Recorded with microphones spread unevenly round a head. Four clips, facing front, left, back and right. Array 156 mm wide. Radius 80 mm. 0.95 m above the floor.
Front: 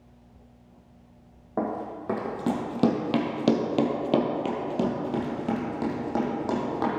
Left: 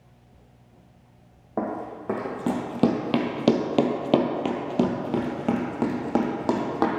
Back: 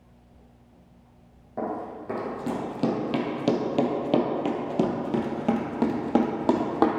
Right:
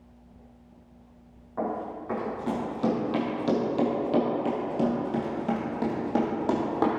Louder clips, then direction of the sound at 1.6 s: Left 1 dB, front 1 dB; 60° left.